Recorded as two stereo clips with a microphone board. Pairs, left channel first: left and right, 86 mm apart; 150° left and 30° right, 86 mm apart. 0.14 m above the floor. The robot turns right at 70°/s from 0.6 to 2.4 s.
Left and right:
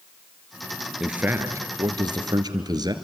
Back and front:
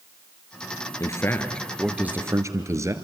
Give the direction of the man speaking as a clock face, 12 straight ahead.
6 o'clock.